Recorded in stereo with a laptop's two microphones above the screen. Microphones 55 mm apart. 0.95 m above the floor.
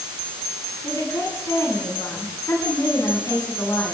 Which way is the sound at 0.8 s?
90° left.